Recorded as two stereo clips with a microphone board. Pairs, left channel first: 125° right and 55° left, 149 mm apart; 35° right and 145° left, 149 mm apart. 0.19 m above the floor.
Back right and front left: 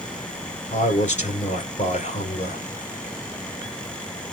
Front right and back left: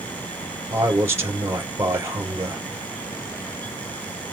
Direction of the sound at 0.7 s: 145° right.